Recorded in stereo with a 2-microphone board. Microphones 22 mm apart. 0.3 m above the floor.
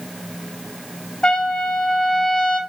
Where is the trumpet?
40° left (ahead or behind), 1.5 m.